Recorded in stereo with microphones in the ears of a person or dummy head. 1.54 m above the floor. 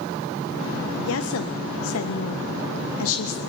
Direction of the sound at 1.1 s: 75° left (ahead or behind).